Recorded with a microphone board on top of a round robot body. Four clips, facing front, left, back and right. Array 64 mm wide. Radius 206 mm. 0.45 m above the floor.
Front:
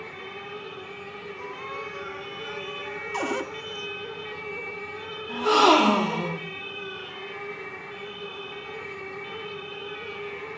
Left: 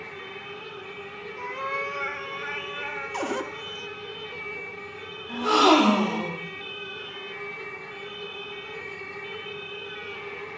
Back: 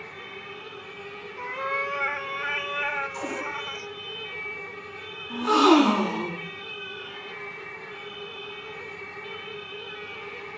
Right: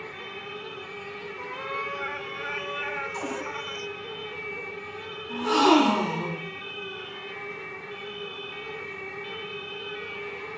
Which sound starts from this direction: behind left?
A cat meowing, at 1.4 s.